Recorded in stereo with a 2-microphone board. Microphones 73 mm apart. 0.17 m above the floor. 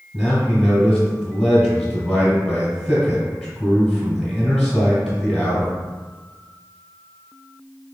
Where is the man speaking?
10° left (ahead or behind), 1.6 m.